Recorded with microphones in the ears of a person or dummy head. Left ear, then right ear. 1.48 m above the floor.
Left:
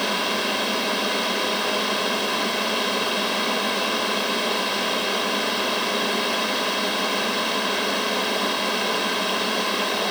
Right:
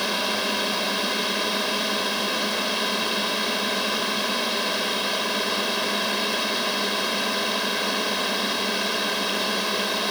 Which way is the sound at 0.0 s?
10° left (ahead or behind).